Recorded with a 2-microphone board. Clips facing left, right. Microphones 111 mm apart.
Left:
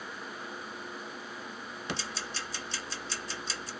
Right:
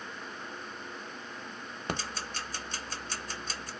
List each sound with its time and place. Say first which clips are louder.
1.9 s ticking: right 3 dB; 50° right (ahead or behind), 0.5 m